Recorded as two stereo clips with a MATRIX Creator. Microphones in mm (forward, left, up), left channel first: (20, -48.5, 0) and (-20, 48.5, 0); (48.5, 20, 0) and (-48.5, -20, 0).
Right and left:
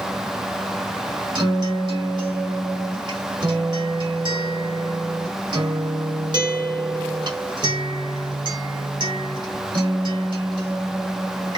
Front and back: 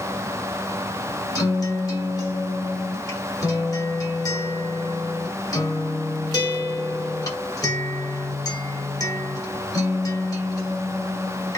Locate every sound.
1.4 s a guitar: 75° left, 1.6 m